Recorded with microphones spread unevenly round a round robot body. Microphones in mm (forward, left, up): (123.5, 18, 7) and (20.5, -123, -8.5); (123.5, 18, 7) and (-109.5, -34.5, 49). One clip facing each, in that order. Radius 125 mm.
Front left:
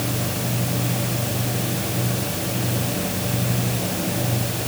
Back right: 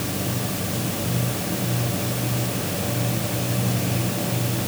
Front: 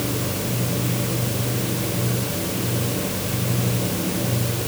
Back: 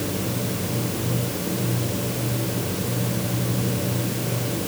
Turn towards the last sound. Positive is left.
No sound to turn to.